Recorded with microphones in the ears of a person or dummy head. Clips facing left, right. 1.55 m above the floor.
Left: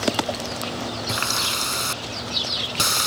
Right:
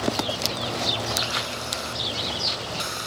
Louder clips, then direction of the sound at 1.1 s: Left 1 dB; 70° left (ahead or behind).